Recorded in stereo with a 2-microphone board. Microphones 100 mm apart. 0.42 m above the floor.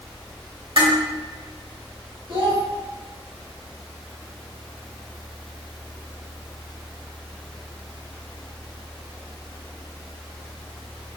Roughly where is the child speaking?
Right.